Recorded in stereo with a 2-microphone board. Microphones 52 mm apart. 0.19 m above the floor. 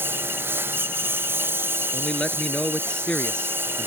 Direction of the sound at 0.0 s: 45° right (ahead or behind).